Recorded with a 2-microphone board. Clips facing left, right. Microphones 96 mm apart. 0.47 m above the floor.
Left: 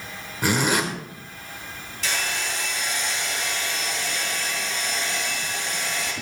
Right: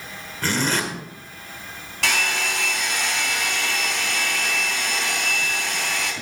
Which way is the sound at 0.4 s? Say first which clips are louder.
Left 2 dB; 15° left (ahead or behind).